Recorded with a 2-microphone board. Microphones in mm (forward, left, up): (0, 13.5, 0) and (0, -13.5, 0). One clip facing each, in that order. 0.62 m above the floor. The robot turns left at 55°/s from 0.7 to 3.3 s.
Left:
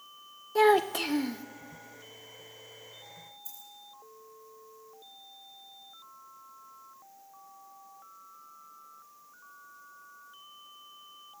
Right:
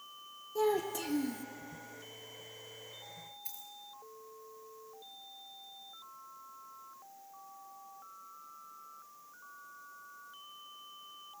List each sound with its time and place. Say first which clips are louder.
0.6 s a child speaking: left 9 dB; 80° left, 0.6 m; by 1.4 s 35° left, 0.6 m
3.5 s a dropped coin: even; 55° right (ahead or behind), 4.5 m